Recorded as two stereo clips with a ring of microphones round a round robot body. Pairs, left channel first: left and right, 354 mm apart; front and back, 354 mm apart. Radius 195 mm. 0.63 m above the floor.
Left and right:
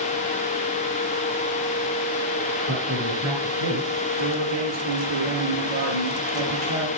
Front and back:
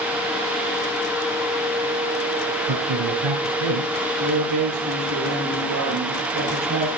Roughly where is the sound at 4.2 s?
Behind right.